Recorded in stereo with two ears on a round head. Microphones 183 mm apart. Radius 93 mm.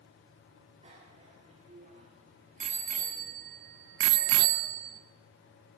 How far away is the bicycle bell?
About 3.5 m.